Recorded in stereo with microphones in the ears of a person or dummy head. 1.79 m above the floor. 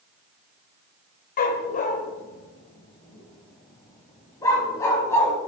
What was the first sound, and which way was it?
A dog barking, 55° left (ahead or behind).